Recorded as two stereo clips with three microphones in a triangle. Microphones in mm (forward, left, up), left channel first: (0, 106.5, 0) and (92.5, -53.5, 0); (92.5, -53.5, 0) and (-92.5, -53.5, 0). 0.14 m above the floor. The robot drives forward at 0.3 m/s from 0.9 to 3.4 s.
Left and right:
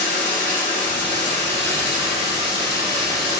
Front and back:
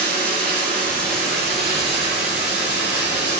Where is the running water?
165° right, 1.8 m; by 3.4 s 170° right, 2.5 m.